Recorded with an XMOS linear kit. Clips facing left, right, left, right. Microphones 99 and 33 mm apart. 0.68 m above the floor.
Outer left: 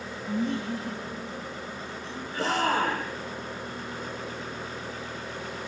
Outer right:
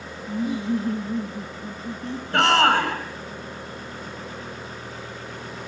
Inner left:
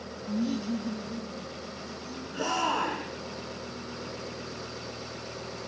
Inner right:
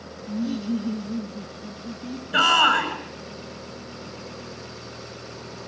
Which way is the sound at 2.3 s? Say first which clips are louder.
Outer right 8 dB, inner right 11 dB; 75° right (ahead or behind).